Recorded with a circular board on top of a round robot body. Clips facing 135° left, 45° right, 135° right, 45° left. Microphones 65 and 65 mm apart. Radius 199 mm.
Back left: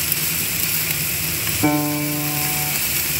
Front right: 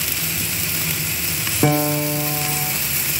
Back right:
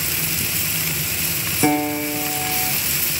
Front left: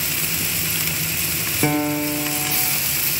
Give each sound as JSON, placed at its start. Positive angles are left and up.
{"t": 1.6, "sound": "a piano", "azimuth_deg": -45, "distance_m": 3.5}